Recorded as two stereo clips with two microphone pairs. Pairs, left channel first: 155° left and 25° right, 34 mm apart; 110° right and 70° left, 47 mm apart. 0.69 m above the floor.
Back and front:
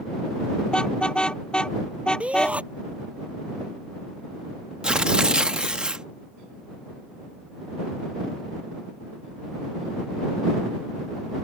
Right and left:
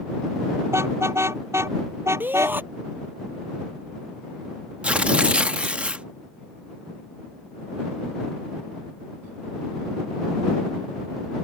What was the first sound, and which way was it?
A car horn, 95° left.